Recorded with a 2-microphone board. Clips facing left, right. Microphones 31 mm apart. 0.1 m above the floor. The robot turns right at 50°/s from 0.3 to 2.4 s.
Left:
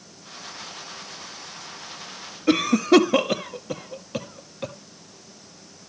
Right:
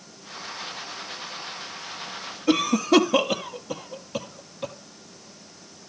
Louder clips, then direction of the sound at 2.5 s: Left 2 dB; 25° left (ahead or behind).